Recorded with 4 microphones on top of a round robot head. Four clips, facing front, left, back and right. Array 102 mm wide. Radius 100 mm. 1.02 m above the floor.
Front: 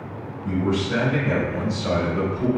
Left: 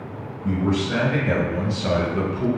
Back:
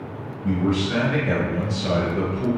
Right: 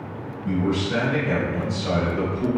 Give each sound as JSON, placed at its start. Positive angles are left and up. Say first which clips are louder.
{"t": 0.4, "sound": "a man speaking", "louder": "left 1 dB, back 1 dB", "azimuth_deg": 150, "distance_m": 1.3}